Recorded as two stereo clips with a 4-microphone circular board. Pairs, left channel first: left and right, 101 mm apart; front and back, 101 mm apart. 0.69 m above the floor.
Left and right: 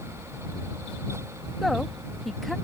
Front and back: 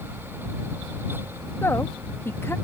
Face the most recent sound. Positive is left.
turn(degrees=0)